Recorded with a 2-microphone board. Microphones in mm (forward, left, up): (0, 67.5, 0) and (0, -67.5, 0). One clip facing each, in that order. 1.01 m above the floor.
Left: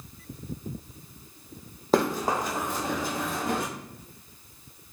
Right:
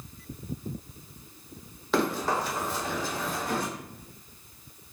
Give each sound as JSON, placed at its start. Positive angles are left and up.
{"t": 1.9, "sound": "running footsteps", "side_deg": 40, "distance_m": 1.7}